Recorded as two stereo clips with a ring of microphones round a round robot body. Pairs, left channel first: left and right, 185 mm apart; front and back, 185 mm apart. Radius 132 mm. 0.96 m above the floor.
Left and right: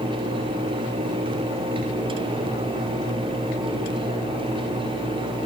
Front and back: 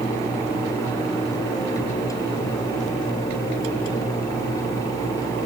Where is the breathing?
I don't hear breathing.